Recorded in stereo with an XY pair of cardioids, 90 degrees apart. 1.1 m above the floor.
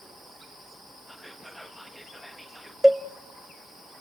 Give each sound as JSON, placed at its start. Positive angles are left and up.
{"t": 1.1, "sound": "whispering", "azimuth_deg": -5, "distance_m": 1.6}
{"t": 2.8, "sound": "a cowbell", "azimuth_deg": -5, "distance_m": 0.6}